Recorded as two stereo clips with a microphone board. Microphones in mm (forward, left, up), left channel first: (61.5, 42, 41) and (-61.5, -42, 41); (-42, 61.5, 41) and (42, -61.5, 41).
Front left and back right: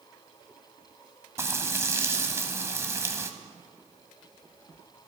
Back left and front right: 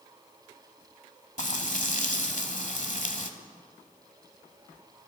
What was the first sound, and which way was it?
Frying, 145° left.